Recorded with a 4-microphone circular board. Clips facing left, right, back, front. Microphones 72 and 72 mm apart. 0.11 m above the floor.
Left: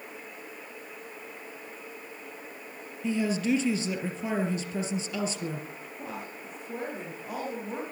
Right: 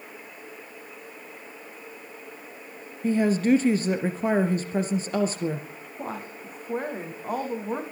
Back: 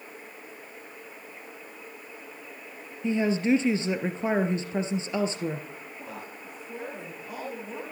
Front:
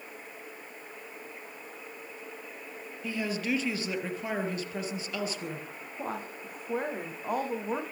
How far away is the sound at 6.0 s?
About 6.5 m.